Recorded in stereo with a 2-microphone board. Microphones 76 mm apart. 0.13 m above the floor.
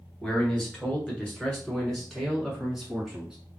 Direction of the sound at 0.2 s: 15° left (ahead or behind).